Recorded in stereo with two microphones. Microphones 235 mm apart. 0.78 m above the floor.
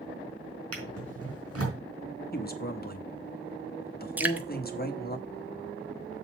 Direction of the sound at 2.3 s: 40° left (ahead or behind).